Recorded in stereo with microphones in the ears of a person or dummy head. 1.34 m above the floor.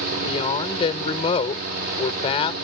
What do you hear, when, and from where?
0.2 s a woman speaking: 35° left (ahead or behind)